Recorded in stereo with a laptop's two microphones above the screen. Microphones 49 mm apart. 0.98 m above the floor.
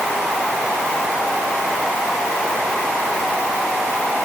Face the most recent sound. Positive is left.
No sound to turn to.